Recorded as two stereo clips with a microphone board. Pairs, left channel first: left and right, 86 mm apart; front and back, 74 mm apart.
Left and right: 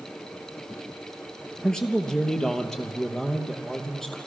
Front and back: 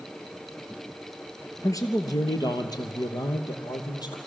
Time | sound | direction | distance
1.6 | a man speaking | 10° left | 2.0 m